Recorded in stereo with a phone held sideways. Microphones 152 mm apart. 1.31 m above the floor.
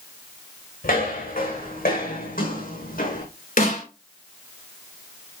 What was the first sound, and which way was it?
Footsteps, 80° left.